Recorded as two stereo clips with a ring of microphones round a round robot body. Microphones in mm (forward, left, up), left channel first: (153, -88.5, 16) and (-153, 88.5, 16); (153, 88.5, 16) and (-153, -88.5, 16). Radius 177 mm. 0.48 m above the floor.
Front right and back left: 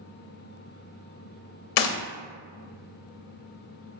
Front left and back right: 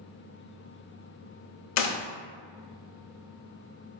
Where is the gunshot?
20° right, 0.5 m.